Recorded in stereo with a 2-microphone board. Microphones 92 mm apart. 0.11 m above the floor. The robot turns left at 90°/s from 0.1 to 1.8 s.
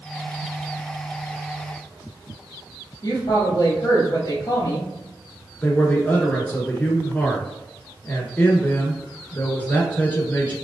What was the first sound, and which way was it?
A woman speaking, 30° left (ahead or behind).